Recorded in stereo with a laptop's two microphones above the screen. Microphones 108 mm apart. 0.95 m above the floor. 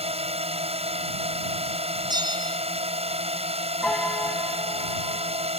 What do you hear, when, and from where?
0.0 s a drone: 70° right (ahead or behind)
2.1 s a bell: 40° right (ahead or behind)
3.8 s a piano: 10° left (ahead or behind)